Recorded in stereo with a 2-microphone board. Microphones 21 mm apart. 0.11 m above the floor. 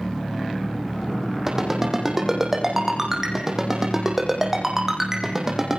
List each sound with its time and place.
1.5 s a ringtone: 15° right (ahead or behind), 4 m